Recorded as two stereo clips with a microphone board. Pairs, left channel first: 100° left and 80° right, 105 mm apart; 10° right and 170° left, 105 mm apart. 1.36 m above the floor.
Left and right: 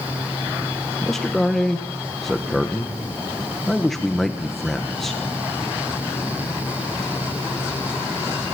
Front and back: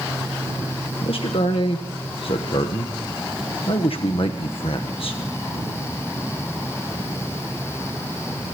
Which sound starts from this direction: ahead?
A man speaking, at 1.0 s.